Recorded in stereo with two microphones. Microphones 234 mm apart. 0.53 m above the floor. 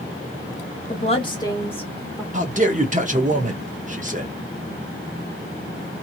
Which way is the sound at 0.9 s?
30° left (ahead or behind).